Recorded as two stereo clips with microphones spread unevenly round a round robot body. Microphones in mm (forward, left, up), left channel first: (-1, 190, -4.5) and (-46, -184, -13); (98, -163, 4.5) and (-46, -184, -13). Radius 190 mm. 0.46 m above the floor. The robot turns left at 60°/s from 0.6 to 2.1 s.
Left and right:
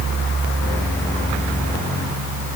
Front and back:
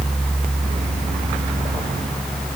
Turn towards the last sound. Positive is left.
No sound to turn to.